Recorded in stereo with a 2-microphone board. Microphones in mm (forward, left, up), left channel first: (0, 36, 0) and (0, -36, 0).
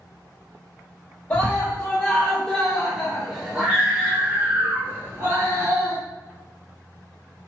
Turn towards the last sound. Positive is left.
turn(degrees=-35)  # may be behind; listen again after turning